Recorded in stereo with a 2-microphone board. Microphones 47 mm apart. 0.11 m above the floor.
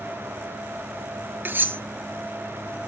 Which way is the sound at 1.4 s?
45° right (ahead or behind).